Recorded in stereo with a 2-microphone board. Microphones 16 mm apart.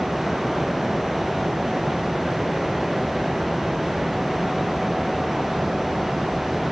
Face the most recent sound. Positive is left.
No sound to turn to.